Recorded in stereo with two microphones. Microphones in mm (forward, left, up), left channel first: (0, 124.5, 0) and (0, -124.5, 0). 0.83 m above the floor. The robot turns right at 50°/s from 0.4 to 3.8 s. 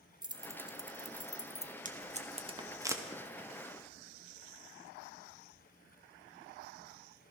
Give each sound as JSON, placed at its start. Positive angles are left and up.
{"t": 0.2, "sound": "keys jangling", "side_deg": -20, "distance_m": 0.6}
{"t": 1.9, "sound": "tape being pulled", "side_deg": -30, "distance_m": 1.1}